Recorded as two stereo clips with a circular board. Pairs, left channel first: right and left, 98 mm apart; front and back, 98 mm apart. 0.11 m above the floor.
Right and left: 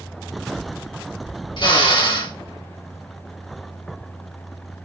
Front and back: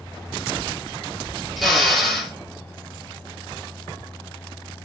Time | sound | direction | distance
1.6 | a drill | 90° right | 2.0 m